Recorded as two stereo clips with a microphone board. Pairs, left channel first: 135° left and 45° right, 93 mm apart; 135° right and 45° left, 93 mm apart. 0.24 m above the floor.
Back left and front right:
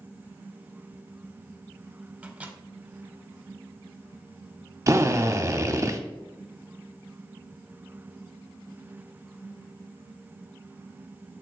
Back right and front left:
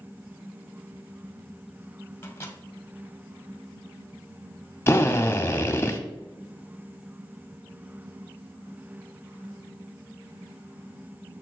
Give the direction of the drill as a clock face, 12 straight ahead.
3 o'clock.